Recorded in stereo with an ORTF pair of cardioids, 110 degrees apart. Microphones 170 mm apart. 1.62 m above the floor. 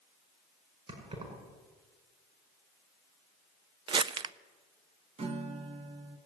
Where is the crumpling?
30° right, 0.6 m.